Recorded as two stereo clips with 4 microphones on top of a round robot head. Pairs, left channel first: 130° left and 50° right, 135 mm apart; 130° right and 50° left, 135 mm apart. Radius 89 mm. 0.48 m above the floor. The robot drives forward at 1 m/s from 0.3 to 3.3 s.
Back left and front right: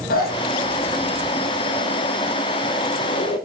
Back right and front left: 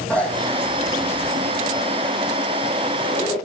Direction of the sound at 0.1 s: 150° left.